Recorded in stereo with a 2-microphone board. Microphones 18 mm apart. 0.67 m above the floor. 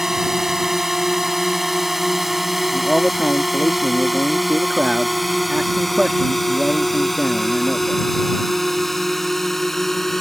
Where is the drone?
30° right (ahead or behind); by 10.2 s 15° left (ahead or behind).